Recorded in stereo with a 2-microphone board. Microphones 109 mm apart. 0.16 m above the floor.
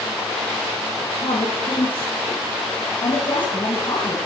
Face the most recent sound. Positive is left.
turn(degrees=40)  # may be behind; listen again after turning